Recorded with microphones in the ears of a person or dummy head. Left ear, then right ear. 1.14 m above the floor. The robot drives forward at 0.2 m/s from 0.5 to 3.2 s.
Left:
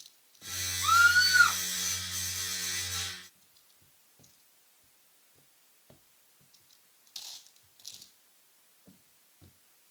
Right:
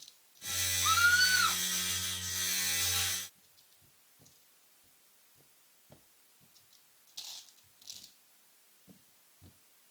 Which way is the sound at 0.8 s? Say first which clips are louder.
Left 4 dB; 35° left (ahead or behind).